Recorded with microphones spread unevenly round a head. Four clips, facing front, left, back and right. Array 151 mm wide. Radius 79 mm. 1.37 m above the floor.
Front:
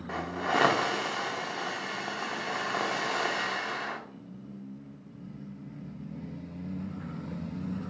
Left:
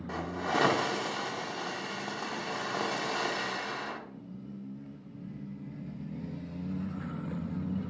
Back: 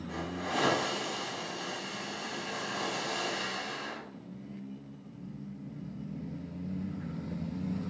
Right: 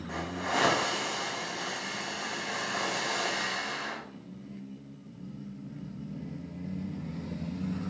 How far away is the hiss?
About 0.9 m.